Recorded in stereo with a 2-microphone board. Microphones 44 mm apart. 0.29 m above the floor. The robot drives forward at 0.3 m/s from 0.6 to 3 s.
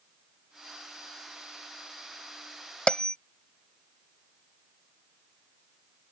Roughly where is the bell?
Left.